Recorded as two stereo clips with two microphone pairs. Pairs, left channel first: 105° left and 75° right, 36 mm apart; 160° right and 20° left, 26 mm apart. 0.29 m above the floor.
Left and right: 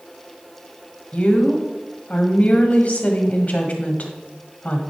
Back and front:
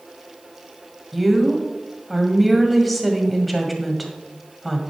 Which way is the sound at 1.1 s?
115° left.